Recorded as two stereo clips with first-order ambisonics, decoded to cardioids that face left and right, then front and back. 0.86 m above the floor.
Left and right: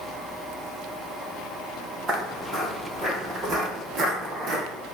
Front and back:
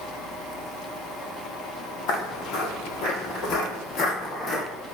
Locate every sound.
2.1 s footsteps: 5° right, 1.7 m; by 4.7 s 65° right, 0.9 m